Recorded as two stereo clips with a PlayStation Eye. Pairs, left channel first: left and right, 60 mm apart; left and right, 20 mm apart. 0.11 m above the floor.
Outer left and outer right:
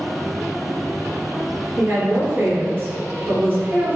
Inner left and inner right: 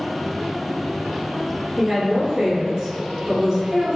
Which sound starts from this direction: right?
A woman speaking, at 1.8 s.